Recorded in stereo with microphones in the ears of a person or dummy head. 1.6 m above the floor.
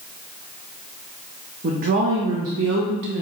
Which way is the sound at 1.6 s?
30° right (ahead or behind).